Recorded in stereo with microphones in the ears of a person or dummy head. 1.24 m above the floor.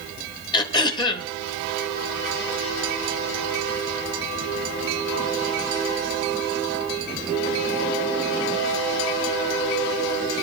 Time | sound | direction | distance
0.5 | throat clearing | 25° left (ahead or behind) | 0.8 m